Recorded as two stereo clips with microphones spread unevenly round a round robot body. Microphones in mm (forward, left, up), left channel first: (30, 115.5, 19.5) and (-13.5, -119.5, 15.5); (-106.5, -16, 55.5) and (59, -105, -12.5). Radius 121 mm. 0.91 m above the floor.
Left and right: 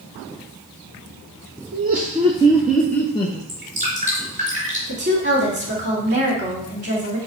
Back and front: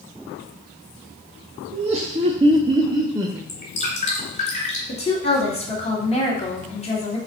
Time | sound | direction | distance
1.7 | laughter | 60° right | 1.0 m
3.5 | dripping | 160° right | 3.5 m
4.9 | a woman speaking | 145° right | 2.5 m